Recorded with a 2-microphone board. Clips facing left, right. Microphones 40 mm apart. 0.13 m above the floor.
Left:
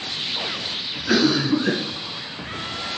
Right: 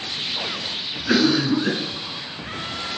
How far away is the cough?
About 1.2 m.